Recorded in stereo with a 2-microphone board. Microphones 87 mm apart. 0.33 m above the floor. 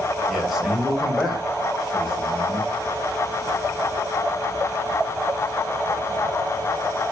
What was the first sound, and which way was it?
A man speaking, centre (ahead or behind).